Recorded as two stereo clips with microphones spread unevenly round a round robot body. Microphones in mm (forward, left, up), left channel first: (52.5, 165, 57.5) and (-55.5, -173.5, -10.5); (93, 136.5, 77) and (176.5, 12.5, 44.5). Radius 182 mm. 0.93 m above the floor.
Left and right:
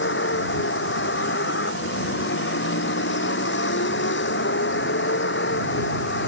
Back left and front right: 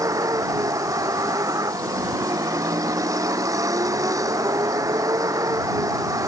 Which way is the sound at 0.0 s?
10° left.